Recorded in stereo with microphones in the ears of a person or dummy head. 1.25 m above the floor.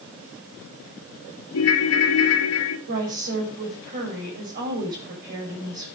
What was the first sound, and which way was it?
A ringtone, 80° left.